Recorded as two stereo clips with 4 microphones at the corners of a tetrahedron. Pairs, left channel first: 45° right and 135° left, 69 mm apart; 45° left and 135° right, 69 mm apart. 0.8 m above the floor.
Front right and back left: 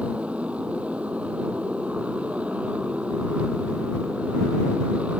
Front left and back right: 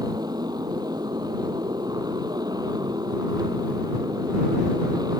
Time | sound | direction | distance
0.0 | a motorcycle | 155° right | ?